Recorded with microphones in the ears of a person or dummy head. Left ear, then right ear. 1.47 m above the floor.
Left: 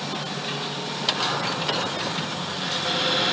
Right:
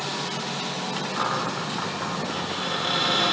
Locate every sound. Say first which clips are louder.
1.2 s a cupboard door: left 1 dB; 60° right (ahead or behind), 1.5 m